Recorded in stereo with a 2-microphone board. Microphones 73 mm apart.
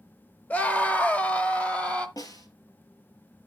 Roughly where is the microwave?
No microwave in this recording.